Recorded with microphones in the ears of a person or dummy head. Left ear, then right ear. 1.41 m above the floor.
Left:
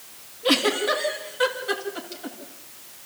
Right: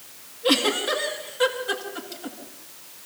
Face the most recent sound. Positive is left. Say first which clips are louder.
# even
turn(degrees=5)  # may be behind; listen again after turning